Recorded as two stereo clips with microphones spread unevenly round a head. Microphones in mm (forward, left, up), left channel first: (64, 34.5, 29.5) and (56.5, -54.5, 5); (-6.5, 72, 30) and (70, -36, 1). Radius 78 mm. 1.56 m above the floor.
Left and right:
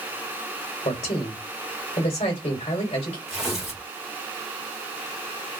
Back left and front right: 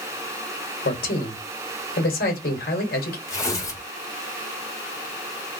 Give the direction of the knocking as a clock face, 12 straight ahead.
I don't hear knocking.